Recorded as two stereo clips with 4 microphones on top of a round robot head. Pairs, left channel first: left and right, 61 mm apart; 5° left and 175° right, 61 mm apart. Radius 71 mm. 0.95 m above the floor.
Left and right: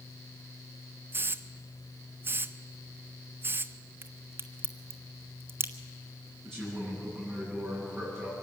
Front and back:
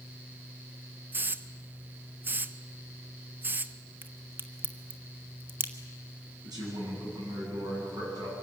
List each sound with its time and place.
1.1 s a hiss: 125° right, 0.7 m
4.0 s a crack: 130° right, 1.4 m
6.4 s a man speaking: 175° left, 9.5 m